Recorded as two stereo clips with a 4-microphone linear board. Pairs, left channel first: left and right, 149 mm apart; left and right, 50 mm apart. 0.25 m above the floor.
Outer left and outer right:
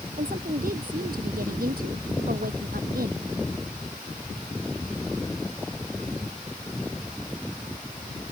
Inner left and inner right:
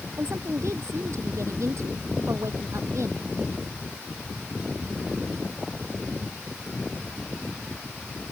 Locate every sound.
0.2 s a woman speaking: 70° right (ahead or behind); by 3.5 s 80° right